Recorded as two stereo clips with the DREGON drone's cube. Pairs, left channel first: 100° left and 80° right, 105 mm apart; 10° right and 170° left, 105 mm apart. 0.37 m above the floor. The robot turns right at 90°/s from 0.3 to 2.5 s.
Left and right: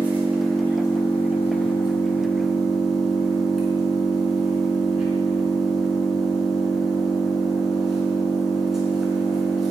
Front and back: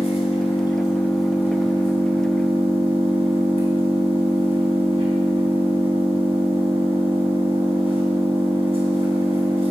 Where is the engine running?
5° right, 4 m; by 9.7 s 165° right, 4 m.